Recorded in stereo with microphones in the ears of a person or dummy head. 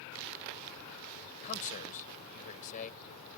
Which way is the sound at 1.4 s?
40° left (ahead or behind).